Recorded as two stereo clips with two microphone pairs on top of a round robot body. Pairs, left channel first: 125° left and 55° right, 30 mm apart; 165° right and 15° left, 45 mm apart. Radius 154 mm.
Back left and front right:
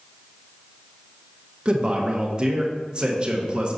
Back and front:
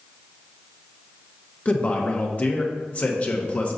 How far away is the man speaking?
About 1.3 m.